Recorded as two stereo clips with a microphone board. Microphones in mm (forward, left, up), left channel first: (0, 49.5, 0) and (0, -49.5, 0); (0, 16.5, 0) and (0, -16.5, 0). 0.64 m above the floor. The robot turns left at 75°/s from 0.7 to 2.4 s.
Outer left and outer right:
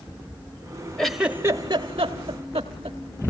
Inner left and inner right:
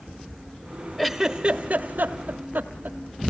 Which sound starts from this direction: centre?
A giggle, at 1.0 s.